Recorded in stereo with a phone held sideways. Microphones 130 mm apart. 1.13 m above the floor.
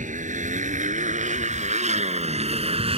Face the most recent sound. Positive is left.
turn(degrees=-50)  # may be behind; listen again after turning